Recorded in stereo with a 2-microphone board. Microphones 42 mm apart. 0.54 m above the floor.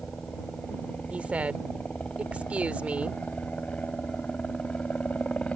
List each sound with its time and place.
0.0 s a helicopter: 35° left (ahead or behind)
1.1 s a woman speaking: 35° right (ahead or behind)